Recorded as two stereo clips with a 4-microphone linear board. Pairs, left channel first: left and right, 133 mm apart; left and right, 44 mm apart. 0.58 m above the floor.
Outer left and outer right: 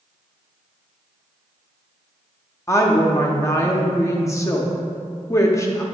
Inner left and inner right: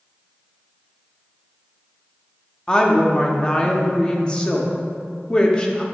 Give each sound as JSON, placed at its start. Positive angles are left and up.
{"t": 2.7, "sound": "a woman speaking", "side_deg": 20, "distance_m": 0.7}